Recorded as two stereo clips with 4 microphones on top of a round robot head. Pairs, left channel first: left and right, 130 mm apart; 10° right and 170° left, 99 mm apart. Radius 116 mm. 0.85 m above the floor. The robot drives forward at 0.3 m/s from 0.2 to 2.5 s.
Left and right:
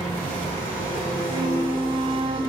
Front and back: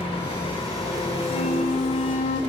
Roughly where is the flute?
Ahead.